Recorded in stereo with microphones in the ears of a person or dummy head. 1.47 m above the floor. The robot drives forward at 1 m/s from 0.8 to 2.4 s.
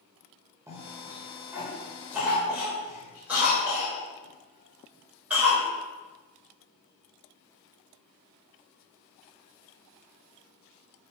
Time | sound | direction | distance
0.7 | a cough | 15° right (ahead or behind) | 1.8 m